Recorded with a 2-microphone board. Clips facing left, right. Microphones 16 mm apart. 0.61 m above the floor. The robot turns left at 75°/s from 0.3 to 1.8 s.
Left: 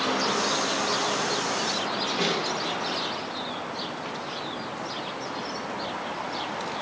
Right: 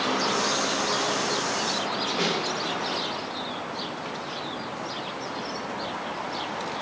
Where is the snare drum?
50° right (ahead or behind), 2 m.